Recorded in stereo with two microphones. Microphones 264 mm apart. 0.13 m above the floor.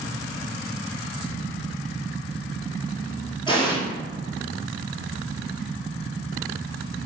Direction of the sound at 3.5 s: 20° left (ahead or behind).